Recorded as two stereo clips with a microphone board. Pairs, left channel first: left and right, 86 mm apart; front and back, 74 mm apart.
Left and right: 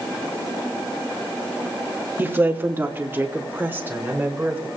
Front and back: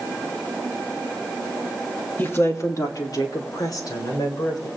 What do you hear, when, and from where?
2.2 s a woman speaking: 45° right, 1.2 m; by 4.7 s 20° right, 4 m